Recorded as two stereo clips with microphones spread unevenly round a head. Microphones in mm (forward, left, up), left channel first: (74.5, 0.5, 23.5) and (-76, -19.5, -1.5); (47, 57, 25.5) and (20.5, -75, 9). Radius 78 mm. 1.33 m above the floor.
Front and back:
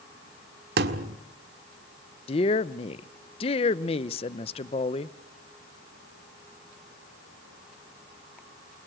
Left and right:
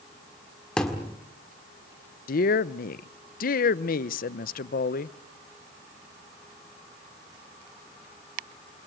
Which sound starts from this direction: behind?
A thud, at 0.8 s.